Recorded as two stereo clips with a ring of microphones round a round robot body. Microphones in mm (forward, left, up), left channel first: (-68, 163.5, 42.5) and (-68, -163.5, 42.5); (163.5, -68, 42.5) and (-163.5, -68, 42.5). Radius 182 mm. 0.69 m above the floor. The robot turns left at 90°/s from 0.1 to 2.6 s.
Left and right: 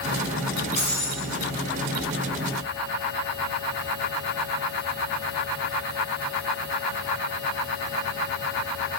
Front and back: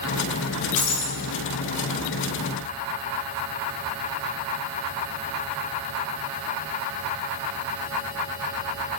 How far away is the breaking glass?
About 2.5 m.